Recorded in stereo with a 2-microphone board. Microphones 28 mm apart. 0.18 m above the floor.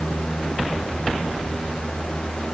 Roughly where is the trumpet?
No trumpet in this recording.